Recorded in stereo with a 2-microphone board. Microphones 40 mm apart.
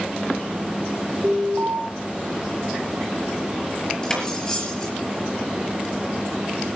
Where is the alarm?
65° right (ahead or behind), 4 m.